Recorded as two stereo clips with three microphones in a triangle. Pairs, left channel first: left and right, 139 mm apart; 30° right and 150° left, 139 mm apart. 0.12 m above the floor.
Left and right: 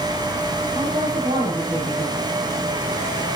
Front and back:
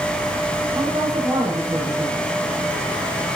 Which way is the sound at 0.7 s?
145° right.